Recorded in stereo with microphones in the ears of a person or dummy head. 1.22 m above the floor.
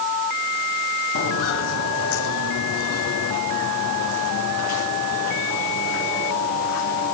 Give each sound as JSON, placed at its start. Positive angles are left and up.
{"t": 1.1, "sound": "footsteps", "side_deg": 70, "distance_m": 4.5}